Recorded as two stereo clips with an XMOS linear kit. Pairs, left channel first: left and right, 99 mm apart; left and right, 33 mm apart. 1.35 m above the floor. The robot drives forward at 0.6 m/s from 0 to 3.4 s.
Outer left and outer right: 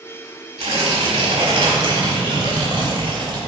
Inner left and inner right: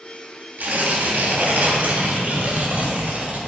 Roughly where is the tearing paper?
Right.